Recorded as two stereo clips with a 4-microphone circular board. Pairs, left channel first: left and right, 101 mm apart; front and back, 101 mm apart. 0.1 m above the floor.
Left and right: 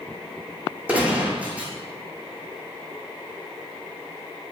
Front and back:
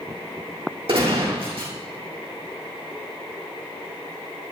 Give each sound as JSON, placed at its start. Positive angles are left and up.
{"t": 0.9, "sound": "a gunshot", "azimuth_deg": -165, "distance_m": 4.0}